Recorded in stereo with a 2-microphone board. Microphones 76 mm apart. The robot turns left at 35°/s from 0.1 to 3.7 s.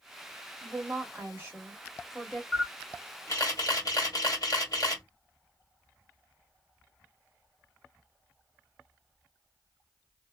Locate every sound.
0.6 s a woman speaking: 120° right, 1.4 m; by 2.4 s 175° left, 1.4 m
2.5 s a camera shutter: 155° left, 1.5 m; by 5.0 s 115° left, 1.5 m